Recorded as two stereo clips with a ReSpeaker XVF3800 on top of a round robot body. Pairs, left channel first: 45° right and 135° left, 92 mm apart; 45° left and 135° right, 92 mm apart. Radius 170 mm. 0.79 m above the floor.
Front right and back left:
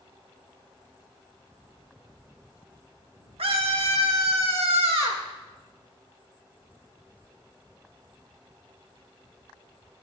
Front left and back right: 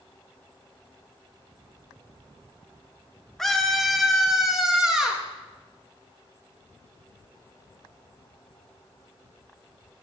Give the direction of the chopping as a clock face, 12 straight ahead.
No chopping in this recording.